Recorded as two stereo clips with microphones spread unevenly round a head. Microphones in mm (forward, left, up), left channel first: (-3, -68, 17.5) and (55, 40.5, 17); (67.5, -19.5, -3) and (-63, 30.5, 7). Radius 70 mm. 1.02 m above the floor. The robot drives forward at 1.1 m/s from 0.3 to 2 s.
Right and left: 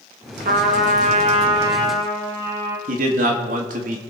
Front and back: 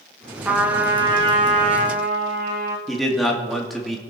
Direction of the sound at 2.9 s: 65° left.